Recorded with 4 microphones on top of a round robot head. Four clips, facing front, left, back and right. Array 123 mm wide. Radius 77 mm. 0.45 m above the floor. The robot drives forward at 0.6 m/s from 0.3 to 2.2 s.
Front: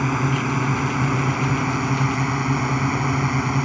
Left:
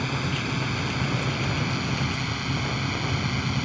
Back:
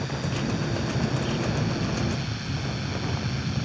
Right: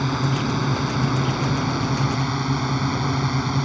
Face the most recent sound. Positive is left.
turn(degrees=-35)